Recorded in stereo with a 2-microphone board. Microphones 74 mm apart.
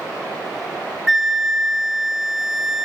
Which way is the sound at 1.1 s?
5° right (ahead or behind).